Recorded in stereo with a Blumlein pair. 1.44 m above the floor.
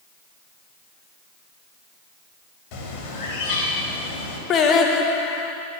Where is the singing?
30° left, 0.7 m.